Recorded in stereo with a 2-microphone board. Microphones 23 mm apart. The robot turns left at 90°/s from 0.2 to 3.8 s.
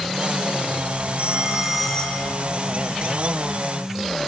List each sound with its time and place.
1.2 s a phone ringing: 115° right, 3.5 m; by 2.4 s 140° left, 3.5 m